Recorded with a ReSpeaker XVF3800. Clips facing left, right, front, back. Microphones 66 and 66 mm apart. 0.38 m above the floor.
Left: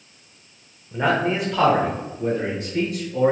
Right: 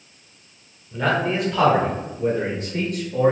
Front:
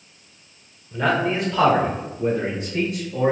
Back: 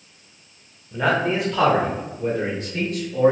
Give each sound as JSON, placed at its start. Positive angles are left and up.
{"t": 0.9, "sound": "a man speaking", "azimuth_deg": 100, "distance_m": 1.0}